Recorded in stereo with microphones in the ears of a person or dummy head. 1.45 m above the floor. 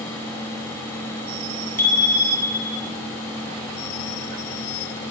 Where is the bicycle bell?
10° left (ahead or behind), 10 m; by 2.9 s 15° left (ahead or behind), 9 m.